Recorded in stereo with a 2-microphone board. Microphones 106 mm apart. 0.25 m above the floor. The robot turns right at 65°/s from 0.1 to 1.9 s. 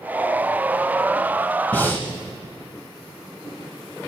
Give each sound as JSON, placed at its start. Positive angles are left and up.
{"t": 1.7, "sound": "breathing", "side_deg": 15, "distance_m": 1.0}